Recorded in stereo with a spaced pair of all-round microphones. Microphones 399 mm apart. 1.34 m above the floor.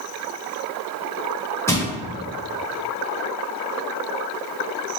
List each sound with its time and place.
1.7 s crushing: 5° left (ahead or behind), 0.9 m